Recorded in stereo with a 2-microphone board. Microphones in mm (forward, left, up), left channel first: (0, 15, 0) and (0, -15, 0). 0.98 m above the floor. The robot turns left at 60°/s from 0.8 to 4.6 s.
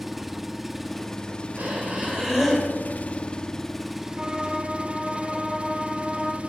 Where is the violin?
30° right (ahead or behind), 2.5 m; by 6.4 s 5° right (ahead or behind), 2.5 m.